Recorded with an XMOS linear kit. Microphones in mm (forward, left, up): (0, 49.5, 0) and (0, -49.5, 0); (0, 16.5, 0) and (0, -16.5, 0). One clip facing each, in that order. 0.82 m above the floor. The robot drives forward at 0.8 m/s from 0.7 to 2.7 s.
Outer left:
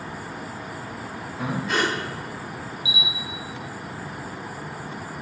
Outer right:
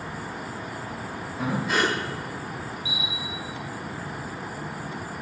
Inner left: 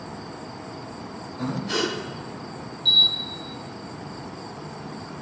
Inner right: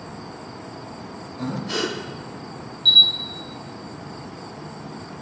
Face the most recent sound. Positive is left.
turn(degrees=-45)  # may be behind; listen again after turning